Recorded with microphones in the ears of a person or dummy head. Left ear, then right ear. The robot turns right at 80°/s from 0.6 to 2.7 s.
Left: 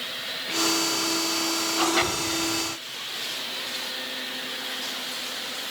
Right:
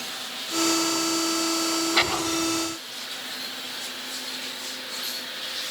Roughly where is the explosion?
Ahead.